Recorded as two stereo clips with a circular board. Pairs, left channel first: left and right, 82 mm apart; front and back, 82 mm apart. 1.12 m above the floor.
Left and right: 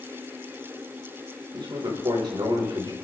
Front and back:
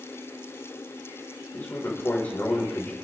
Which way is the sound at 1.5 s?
70° right.